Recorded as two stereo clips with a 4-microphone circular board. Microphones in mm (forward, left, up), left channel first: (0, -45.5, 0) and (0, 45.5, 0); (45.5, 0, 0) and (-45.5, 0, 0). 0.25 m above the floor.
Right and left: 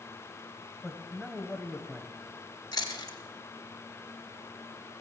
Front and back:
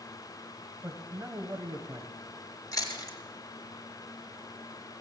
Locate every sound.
0.8 s a man speaking: 175° right, 1.0 m
2.7 s chewing: 45° right, 2.5 m